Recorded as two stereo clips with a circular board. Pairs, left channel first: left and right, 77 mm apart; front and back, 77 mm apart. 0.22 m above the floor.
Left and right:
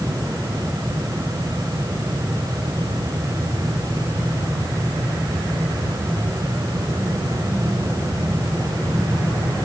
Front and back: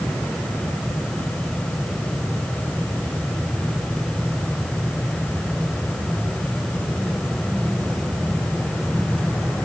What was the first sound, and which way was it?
Only background noise.